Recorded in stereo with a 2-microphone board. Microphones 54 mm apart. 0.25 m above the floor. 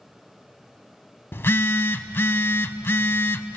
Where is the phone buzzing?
50° left (ahead or behind), 0.6 m.